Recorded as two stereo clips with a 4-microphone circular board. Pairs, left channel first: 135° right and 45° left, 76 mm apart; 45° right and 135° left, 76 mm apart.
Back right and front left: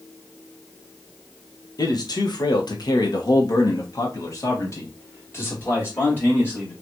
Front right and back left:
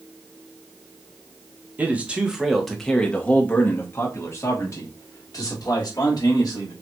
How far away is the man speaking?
About 1.2 m.